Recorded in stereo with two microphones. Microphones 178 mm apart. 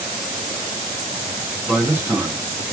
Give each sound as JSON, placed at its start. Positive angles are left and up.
{"t": 1.7, "sound": "a man speaking", "side_deg": -10, "distance_m": 0.8}